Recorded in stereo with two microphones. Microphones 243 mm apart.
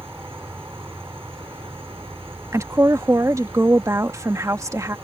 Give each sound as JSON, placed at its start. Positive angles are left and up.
{"t": 0.0, "sound": "an insect", "side_deg": -10}
{"t": 2.5, "sound": "a woman speaking", "side_deg": -10}